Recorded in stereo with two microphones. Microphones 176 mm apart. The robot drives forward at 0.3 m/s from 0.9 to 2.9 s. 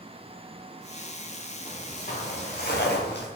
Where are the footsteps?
45° left (ahead or behind), 3.5 m; by 3.3 s 80° left, 2.5 m.